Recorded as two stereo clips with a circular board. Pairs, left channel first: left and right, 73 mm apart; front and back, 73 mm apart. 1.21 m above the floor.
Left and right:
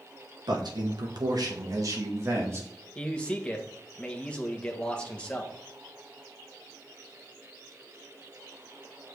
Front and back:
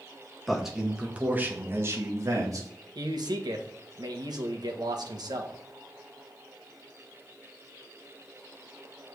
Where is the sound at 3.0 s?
165° left, 1.4 m.